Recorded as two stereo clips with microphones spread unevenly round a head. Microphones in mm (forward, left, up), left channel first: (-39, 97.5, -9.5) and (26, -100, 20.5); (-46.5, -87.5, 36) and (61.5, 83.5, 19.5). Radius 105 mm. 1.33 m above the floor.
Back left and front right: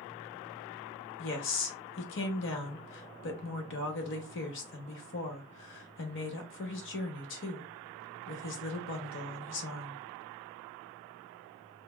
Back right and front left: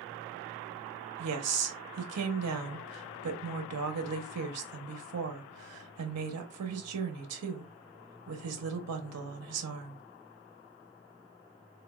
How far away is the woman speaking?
About 0.8 m.